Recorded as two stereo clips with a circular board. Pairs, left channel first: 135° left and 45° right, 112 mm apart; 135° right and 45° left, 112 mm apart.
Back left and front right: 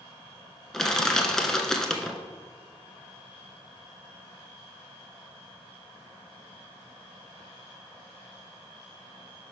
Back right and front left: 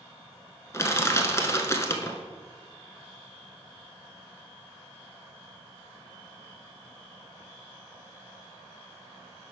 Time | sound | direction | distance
0.7 | crushing | 145° right | 0.8 m